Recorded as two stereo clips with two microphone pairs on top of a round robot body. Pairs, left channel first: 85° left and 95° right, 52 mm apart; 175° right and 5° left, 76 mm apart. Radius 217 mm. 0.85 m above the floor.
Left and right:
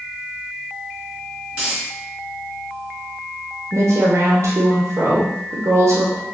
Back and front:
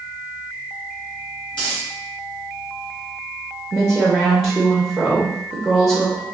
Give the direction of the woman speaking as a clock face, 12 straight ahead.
3 o'clock.